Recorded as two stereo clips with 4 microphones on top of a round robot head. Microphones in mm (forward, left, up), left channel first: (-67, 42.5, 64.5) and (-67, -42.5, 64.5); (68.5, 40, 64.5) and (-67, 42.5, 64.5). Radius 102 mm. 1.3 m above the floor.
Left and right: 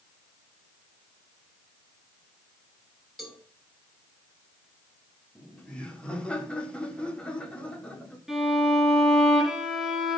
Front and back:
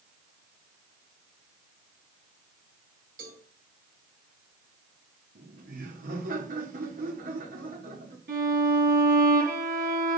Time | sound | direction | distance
3.2 | a cowbell | straight behind | 6 m
5.3 | laughter | 165° left | 3 m
8.3 | a violin | 175° right | 6.5 m